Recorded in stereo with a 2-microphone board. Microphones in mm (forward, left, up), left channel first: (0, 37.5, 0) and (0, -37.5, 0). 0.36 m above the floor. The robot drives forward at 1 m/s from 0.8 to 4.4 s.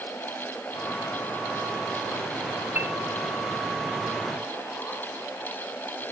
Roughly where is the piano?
Right.